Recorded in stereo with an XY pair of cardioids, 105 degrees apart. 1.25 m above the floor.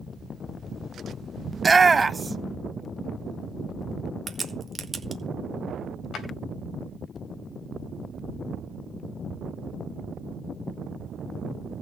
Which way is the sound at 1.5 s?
20° right.